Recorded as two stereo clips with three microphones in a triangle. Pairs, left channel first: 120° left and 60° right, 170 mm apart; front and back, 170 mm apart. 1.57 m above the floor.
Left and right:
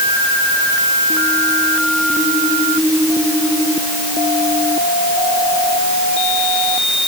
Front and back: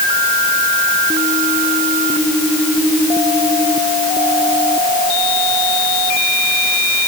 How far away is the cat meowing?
No cat meowing in this recording.